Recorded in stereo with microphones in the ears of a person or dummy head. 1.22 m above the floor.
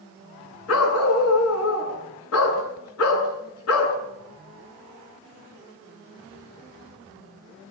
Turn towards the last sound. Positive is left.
turn(degrees=80)